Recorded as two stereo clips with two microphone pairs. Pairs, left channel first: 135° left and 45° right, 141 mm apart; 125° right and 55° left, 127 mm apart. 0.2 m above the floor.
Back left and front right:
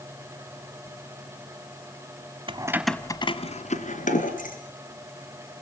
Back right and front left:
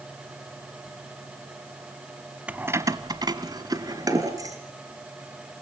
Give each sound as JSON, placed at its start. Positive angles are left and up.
{"t": 2.5, "sound": "keys jangling", "azimuth_deg": -20, "distance_m": 1.0}